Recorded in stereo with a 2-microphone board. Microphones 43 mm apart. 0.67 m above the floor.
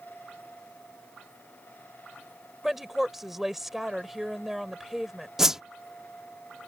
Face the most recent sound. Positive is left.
turn(degrees=-10)  # may be behind; listen again after turning